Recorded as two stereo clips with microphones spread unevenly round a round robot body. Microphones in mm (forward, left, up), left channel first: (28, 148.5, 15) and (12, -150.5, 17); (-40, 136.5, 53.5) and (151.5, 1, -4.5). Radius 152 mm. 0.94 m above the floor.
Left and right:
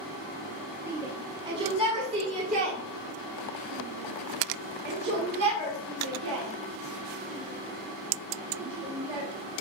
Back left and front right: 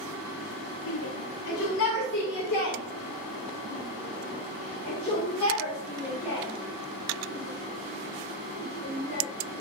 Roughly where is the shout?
Behind.